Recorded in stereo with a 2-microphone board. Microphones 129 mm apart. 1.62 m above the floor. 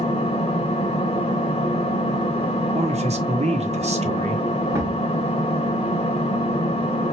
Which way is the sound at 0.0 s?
50° left (ahead or behind).